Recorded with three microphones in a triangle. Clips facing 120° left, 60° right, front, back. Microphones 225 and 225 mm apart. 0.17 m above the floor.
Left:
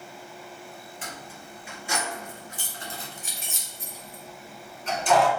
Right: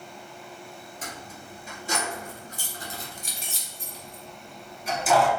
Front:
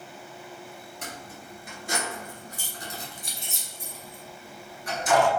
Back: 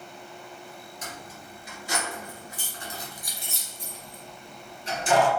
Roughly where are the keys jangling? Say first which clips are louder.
Right 2 dB, front 1 dB; ahead.